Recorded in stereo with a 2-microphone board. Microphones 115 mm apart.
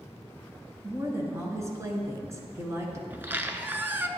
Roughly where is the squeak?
Centre.